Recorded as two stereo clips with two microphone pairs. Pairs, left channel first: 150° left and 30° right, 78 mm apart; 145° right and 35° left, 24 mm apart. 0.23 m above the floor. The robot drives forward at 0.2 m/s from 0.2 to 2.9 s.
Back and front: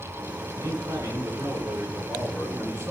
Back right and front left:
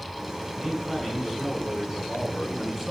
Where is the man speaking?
60° right, 2.5 m; by 2.9 s 70° right, 2 m.